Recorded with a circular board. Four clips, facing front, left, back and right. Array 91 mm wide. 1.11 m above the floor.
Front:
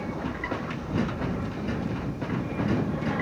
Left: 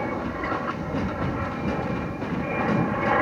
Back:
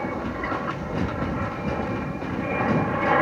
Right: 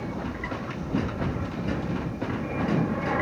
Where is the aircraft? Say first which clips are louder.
Left 5 dB, back 4 dB; 130° left; by 3.2 s 150° left.